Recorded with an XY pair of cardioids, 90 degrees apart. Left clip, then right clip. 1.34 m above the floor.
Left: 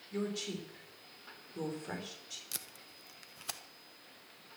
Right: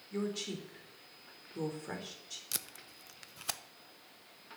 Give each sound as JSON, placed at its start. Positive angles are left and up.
{"t": 0.1, "sound": "a woman speaking", "azimuth_deg": -10, "distance_m": 3.5}
{"t": 2.5, "sound": "tape being pulled", "azimuth_deg": -30, "distance_m": 0.8}